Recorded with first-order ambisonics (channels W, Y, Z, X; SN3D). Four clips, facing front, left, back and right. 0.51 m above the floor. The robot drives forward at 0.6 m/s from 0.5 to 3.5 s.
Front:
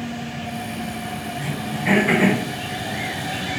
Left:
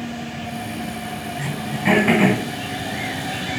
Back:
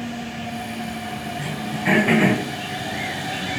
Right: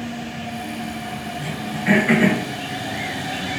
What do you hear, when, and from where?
1.4 s throat clearing: 95° left, 2 m; by 2.4 s 110° left, 2.5 m